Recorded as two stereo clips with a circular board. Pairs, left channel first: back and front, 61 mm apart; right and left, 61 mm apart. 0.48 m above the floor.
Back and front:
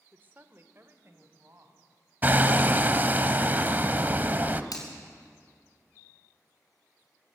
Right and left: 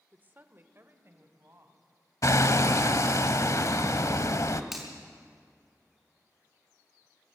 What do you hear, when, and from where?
0.1 s a woman speaking: 45° left, 1.1 m; by 1.9 s 40° left, 3.5 m
2.2 s hammering: 60° right, 0.8 m
4.7 s a finger snap: 175° left, 5 m